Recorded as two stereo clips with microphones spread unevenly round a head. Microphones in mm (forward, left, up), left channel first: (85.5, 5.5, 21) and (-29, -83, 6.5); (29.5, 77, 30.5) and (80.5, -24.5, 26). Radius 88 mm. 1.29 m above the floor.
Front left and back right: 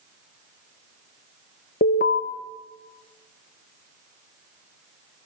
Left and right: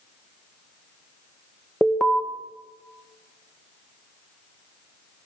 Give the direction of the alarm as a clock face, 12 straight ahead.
11 o'clock.